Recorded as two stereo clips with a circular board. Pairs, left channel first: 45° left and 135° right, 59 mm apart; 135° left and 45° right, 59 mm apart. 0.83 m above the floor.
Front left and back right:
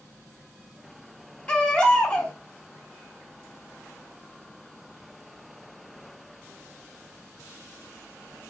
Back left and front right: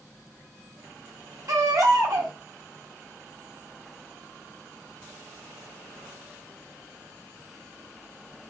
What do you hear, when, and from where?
1.5 s a baby crying: 30° right, 1.0 m